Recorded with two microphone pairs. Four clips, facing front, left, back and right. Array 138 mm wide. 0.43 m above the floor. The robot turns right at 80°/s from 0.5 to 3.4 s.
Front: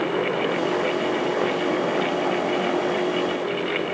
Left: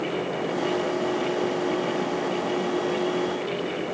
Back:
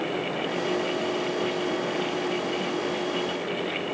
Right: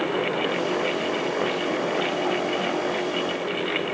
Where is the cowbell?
No cowbell in this recording.